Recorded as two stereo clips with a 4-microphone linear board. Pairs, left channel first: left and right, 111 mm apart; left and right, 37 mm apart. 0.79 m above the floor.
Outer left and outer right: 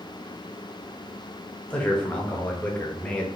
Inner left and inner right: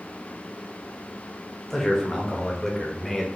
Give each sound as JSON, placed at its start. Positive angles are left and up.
{"t": 1.7, "sound": "a man speaking", "side_deg": 10, "distance_m": 0.9}